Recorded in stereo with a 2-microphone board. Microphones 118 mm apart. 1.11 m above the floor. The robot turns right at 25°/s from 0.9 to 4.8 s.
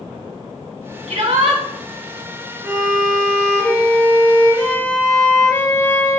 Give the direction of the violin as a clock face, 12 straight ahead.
1 o'clock.